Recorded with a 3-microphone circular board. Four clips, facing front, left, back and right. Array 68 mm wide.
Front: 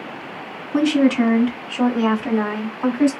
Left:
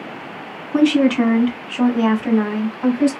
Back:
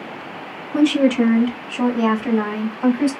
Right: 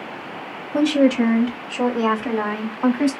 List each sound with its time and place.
0.7 s a woman speaking: 85° left, 2 m; by 3.1 s 110° right, 1.5 m